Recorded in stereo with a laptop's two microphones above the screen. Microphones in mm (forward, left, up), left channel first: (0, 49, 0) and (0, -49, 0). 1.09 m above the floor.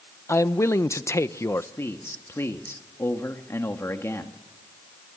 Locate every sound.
0.3 s a man speaking: 30° left (ahead or behind), 0.9 m
1.8 s a man speaking: 30° left (ahead or behind), 1.7 m